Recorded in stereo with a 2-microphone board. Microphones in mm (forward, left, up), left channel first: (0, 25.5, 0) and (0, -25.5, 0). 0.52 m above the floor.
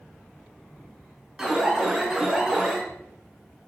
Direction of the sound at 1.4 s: 10° right (ahead or behind).